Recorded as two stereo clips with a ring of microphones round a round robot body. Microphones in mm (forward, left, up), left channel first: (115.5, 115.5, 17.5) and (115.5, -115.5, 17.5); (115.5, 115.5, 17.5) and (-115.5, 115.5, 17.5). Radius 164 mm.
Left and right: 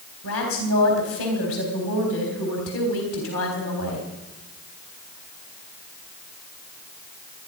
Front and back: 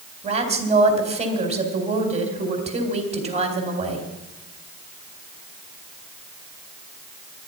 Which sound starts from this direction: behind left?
A woman speaking, at 0.2 s.